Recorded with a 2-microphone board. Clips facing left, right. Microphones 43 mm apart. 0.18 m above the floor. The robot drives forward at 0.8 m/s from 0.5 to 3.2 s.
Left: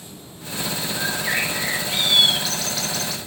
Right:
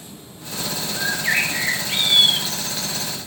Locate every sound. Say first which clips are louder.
1.0 s a bird: right 3 dB; 10° right (ahead or behind), 1.6 m; by 3.2 s 25° right (ahead or behind), 0.8 m